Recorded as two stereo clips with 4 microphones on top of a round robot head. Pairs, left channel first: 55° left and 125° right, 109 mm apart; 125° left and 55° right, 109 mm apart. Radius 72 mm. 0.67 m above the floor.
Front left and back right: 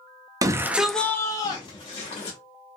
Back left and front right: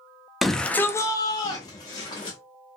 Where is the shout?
145° right, 0.6 m; by 2.4 s 80° left, 1.1 m.